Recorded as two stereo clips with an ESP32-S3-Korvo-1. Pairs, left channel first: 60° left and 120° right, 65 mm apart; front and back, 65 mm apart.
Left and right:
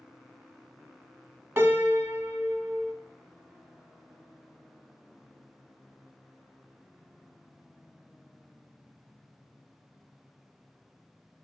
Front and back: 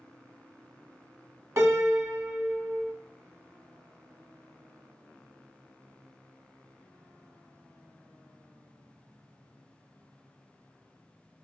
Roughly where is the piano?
Behind right.